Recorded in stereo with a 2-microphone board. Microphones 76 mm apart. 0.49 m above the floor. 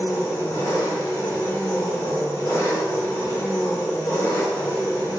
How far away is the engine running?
About 1.8 m.